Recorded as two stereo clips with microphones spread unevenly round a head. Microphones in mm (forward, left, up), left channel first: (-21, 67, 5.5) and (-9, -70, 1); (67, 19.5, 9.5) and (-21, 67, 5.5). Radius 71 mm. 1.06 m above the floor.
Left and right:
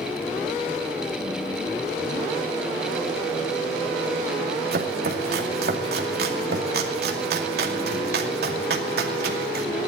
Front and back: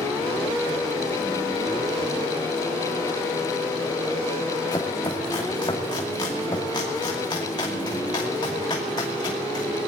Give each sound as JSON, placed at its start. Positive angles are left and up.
{"t": 4.7, "sound": "chopping", "azimuth_deg": -90, "distance_m": 2.5}